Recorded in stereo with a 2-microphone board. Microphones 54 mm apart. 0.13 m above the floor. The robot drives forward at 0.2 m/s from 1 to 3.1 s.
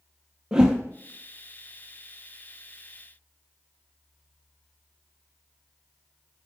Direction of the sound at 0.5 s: 15° right (ahead or behind).